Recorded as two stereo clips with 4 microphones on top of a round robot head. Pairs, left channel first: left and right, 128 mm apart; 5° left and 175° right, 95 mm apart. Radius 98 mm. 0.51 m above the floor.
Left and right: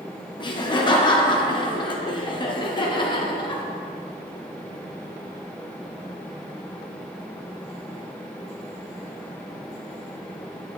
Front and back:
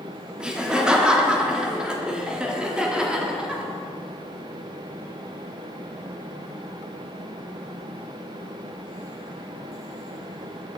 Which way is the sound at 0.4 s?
110° left.